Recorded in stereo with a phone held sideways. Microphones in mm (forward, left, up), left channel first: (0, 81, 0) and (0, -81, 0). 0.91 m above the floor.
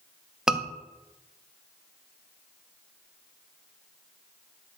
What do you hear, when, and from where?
0.5 s a scream: 5° right (ahead or behind), 0.9 m